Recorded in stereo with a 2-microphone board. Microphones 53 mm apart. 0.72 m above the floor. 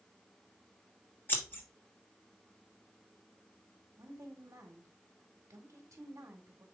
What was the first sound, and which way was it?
Scissors, 35° left (ahead or behind).